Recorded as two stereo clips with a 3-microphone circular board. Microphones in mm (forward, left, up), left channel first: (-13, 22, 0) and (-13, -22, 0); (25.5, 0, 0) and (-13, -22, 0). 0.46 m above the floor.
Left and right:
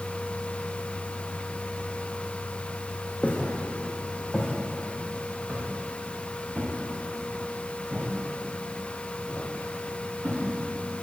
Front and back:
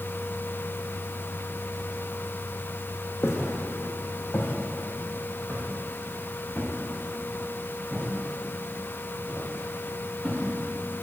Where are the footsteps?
30° left, 1.5 m; by 10.4 s 45° right, 6 m.